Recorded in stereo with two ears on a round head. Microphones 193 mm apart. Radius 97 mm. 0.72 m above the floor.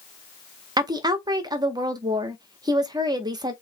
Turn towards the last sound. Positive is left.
turn(degrees=-20)  # may be behind; listen again after turning